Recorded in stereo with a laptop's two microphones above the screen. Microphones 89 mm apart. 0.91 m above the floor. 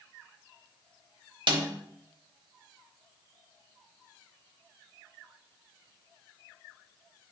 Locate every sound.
1.5 s a snare drum: 65° right (ahead or behind), 1.1 m